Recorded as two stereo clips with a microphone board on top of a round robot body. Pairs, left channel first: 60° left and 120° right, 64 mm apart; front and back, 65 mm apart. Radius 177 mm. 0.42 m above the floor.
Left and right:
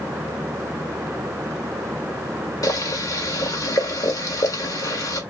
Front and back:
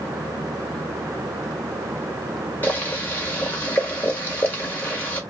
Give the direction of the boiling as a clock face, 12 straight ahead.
10 o'clock.